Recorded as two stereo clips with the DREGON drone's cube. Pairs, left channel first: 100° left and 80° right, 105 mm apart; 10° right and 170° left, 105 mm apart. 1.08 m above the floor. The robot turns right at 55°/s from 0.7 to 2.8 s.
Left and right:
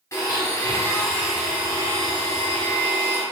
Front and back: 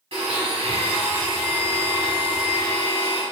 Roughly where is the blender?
Behind left.